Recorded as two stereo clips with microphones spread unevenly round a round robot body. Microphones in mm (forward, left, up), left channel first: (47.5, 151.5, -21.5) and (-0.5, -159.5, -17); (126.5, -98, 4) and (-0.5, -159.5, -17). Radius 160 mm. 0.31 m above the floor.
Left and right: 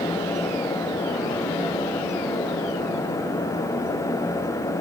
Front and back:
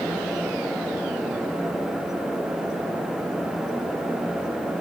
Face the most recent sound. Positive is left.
No sound to turn to.